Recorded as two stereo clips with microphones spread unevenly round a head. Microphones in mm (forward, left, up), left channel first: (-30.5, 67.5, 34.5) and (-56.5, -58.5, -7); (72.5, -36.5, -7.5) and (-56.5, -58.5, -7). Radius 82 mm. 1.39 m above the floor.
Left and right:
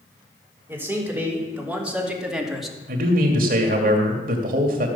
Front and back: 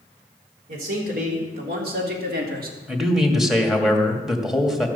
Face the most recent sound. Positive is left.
turn(degrees=-85)